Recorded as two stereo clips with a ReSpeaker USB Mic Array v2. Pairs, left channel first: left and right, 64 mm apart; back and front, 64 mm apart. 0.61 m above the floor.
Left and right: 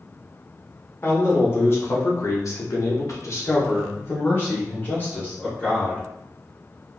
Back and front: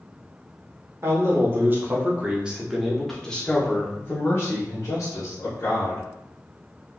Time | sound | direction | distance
1.0 | a man speaking | 40° left | 1.5 m